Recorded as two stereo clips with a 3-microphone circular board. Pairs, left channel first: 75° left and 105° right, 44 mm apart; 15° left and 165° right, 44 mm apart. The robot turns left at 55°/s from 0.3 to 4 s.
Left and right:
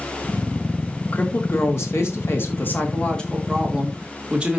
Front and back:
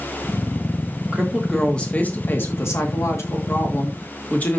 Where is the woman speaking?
120° left, 2.5 m; by 4.6 s 40° right, 2.5 m.